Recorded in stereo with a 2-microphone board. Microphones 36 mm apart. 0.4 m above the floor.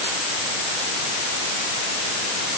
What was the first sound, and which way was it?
Only background noise.